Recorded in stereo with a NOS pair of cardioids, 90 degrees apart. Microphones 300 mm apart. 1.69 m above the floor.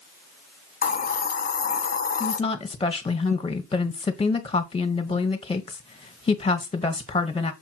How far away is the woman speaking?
About 1.7 m.